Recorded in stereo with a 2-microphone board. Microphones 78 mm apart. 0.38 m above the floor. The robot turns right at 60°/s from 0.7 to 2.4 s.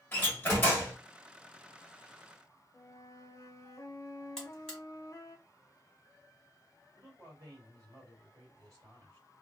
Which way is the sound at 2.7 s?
40° left (ahead or behind).